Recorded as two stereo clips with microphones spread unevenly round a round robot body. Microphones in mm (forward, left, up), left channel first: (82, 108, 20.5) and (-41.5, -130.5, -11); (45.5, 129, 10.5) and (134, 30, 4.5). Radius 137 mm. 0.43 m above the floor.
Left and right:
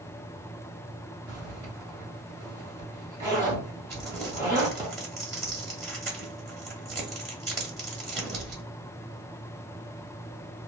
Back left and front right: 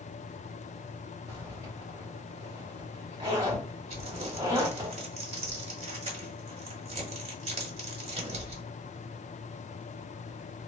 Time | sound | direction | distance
1.3 | a zipper | 70° right | 1.5 m
3.9 | crumpling | 30° right | 1.2 m